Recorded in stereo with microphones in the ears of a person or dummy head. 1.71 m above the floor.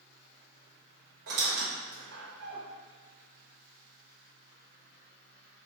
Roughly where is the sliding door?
I don't hear a sliding door.